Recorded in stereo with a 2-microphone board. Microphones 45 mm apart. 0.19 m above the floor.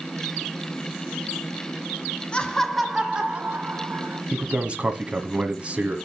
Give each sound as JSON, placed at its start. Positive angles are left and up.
{"t": 2.3, "sound": "laughter", "side_deg": 25, "distance_m": 1.8}
{"t": 4.3, "sound": "a man speaking", "side_deg": -25, "distance_m": 1.4}